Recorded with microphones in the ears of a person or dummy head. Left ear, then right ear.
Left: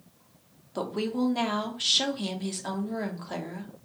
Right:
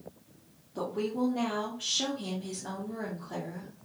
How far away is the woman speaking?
About 0.8 m.